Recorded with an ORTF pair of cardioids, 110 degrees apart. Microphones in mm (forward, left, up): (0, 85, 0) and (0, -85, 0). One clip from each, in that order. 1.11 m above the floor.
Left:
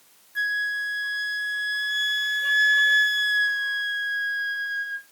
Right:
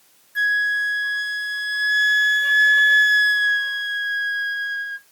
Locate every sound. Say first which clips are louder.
0.3 s a flute: right 6 dB; 15° right, 0.9 m